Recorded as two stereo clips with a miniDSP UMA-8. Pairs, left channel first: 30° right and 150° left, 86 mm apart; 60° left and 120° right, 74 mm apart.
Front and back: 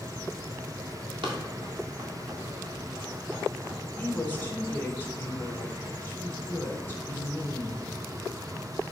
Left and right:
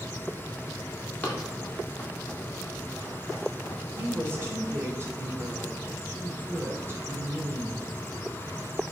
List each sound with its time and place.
1.2 s running footsteps: 130° left, 2.5 m
4.0 s a woman speaking: 80° right, 1.8 m